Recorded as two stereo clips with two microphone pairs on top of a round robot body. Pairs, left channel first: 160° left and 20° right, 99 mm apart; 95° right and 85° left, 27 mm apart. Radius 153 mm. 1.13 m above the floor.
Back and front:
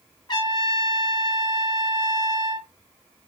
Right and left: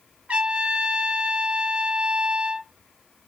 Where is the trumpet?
115° left, 2.5 m.